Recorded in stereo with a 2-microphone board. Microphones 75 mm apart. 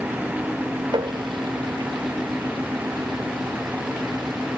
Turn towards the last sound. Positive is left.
turn(degrees=-85)